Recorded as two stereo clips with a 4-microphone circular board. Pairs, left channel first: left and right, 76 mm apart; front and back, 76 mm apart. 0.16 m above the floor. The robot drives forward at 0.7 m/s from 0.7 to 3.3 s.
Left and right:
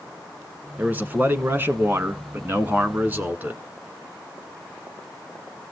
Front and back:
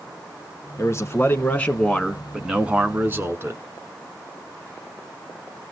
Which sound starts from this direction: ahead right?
A man speaking, at 0.8 s.